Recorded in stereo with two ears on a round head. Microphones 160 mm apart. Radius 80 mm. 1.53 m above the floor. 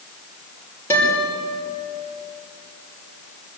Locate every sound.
0.9 s a guitar: 15° left (ahead or behind), 5.5 m